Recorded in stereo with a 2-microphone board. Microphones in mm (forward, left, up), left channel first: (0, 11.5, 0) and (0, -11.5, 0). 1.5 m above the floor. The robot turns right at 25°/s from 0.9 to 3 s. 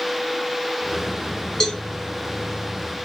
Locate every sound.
1.6 s a cowbell: 25° left (ahead or behind), 1.2 m; by 1.8 s 30° left (ahead or behind), 1.2 m